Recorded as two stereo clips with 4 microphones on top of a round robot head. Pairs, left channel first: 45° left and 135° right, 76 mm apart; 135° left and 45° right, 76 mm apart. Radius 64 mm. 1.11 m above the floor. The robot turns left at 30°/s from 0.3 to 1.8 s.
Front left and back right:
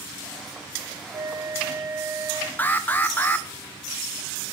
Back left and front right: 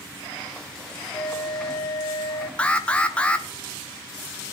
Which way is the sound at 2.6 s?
80° left.